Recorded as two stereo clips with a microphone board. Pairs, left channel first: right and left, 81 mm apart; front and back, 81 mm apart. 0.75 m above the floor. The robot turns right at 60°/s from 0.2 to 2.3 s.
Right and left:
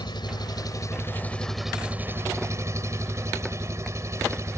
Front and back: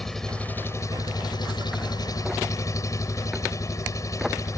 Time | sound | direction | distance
0.0 | an engine running | 85° right | ?